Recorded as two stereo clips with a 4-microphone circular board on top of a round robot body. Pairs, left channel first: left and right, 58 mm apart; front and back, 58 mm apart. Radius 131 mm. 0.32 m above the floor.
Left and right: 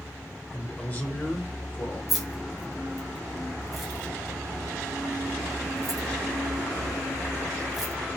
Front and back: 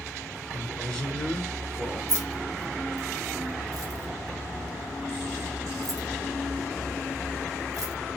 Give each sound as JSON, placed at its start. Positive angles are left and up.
{"t": 0.5, "sound": "a man speaking", "azimuth_deg": 65, "distance_m": 1.6}
{"t": 2.1, "sound": "keys jangling", "azimuth_deg": -175, "distance_m": 1.1}